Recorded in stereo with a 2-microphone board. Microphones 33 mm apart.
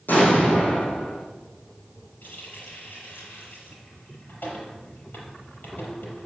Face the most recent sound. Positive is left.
turn(degrees=75)  # may be behind; listen again after turning